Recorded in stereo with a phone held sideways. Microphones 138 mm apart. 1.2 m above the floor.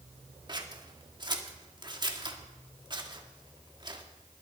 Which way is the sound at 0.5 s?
30° right (ahead or behind).